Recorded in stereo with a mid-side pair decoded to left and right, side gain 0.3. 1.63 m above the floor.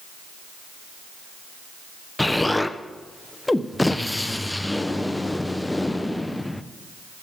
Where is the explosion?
15° left, 0.8 m.